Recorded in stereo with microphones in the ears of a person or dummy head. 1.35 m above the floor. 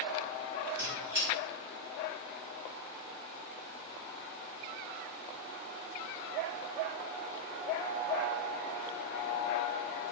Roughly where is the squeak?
Centre.